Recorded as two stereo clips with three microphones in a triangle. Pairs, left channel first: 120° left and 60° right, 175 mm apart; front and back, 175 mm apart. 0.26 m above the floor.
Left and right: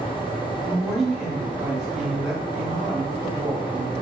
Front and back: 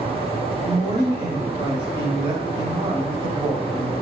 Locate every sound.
0.7 s a woman speaking: 145° right, 1.1 m